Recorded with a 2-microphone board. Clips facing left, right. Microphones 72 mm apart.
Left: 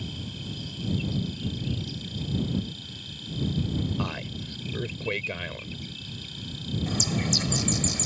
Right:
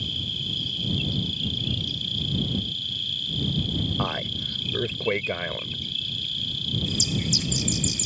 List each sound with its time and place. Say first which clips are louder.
0.0 s an insect: right 2 dB; 25° left (ahead or behind)
4.0 s a man speaking: right 4 dB; 25° right (ahead or behind)
6.9 s a bird: left 2 dB; 55° left (ahead or behind)